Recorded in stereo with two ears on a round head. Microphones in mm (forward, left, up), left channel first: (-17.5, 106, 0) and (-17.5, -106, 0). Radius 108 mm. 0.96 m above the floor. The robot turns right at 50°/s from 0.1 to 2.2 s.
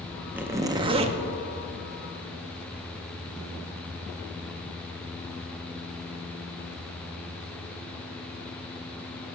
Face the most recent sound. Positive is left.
turn(degrees=-75)